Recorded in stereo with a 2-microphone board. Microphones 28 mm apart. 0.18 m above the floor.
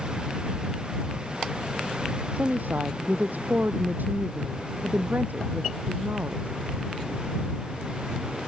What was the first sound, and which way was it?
A woman speaking, 75° right (ahead or behind).